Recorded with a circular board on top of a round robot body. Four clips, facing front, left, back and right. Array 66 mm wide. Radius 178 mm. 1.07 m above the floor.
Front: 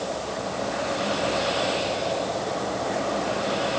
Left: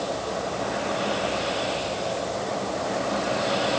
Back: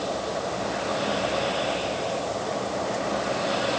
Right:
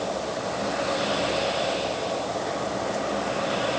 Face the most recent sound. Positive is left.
No sound to turn to.